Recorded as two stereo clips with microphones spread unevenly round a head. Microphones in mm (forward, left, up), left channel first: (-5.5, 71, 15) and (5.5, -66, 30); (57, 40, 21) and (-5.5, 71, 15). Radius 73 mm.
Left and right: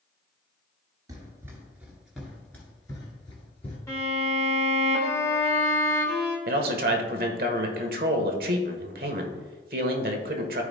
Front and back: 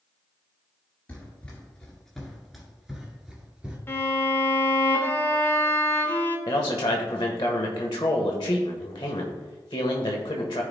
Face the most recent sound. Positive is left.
turn(degrees=-70)